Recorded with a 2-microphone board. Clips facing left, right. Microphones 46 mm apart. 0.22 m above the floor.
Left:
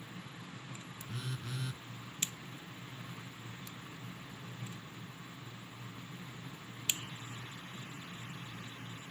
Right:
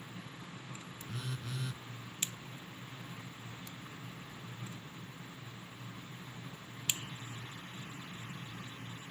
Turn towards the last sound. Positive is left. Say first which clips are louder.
# even
turn(degrees=0)  # may be behind; listen again after turning